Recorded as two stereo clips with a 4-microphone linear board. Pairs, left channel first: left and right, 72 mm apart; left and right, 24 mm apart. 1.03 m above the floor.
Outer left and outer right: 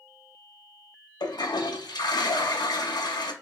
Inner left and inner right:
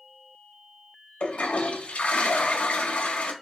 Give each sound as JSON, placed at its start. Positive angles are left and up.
{"t": 1.2, "sound": "a toilet flushing", "side_deg": 80, "distance_m": 0.6}